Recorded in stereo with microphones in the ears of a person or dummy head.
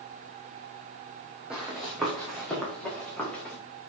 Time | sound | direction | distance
1.5 | running footsteps | 5° right (ahead or behind) | 3.5 m